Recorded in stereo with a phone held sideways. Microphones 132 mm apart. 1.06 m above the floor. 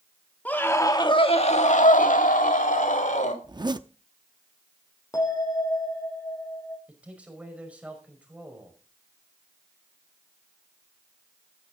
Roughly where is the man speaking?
Centre.